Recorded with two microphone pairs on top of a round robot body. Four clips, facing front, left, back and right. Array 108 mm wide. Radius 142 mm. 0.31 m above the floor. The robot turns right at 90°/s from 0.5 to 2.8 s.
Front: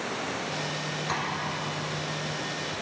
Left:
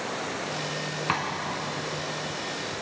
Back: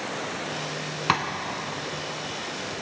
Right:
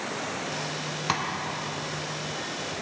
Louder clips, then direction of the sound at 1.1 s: Even, back 8 dB; 155° right.